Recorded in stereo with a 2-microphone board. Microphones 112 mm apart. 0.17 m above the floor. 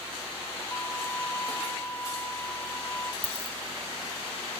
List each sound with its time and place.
0.7 s a violin: 20° left (ahead or behind)
3.2 s a dropped coin: 20° left (ahead or behind)